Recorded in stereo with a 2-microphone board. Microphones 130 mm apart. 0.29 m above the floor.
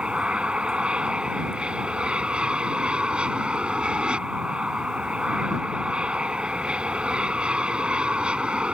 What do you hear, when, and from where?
0.0 s an aircraft: 5° right (ahead or behind)